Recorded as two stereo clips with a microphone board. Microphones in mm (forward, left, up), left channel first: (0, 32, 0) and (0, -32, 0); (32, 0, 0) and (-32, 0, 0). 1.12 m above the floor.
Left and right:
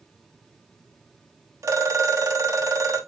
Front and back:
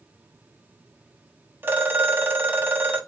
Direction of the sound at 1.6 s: 125° right.